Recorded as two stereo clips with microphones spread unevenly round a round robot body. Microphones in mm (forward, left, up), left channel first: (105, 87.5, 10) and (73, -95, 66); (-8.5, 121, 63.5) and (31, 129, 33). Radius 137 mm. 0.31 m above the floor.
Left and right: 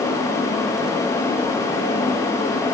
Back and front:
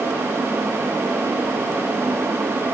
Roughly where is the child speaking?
I don't hear a child speaking.